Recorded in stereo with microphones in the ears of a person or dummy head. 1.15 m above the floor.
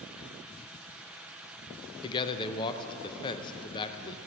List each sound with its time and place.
2.0 s a man speaking: 25° left (ahead or behind), 0.7 m